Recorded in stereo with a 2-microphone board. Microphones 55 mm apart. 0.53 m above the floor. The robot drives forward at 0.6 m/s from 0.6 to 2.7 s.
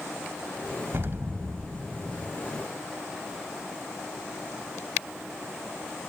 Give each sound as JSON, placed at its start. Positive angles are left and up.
{"t": 0.9, "sound": "an explosion", "side_deg": -45}